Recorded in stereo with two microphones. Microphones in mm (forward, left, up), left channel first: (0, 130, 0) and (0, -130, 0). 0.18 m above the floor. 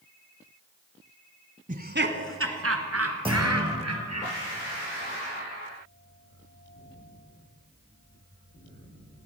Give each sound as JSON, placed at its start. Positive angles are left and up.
{"t": 1.7, "sound": "laughter", "side_deg": -30, "distance_m": 1.3}
{"t": 3.2, "sound": "a clunk", "side_deg": -20, "distance_m": 5.5}